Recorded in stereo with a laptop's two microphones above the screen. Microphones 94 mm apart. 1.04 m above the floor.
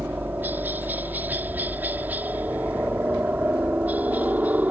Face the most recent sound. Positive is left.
turn(degrees=-15)  # may be behind; listen again after turning